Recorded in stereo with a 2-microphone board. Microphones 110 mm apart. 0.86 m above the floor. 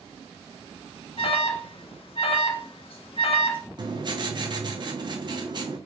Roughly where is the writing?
Right.